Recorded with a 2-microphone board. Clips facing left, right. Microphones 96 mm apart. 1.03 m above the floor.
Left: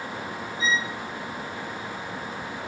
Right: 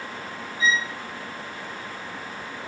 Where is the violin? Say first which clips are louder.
Right 2 dB; 30° left (ahead or behind), 0.6 m.